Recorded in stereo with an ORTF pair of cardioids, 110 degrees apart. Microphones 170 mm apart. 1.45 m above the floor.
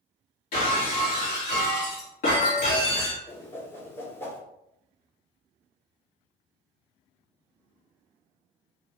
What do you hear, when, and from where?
0.5 s breaking glass: 60° left, 1.9 m
3.3 s a whoosh: 15° left, 1.1 m